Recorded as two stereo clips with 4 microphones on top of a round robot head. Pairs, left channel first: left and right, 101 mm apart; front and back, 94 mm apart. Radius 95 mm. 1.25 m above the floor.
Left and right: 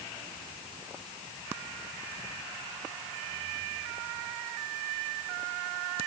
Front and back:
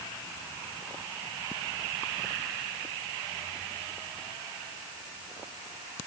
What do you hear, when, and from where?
Only background noise.